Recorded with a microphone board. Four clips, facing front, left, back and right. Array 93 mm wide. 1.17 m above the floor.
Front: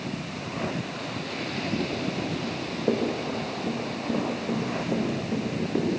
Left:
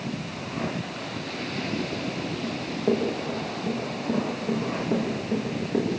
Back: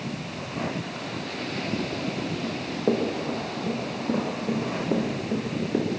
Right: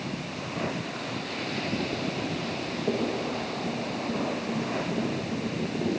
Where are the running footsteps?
170° left, 8.5 m; by 5.9 s 155° left, 10.5 m.